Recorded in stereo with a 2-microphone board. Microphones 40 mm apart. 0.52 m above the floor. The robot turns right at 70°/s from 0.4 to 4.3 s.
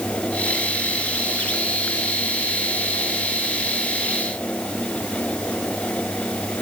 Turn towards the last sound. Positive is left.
No sound to turn to.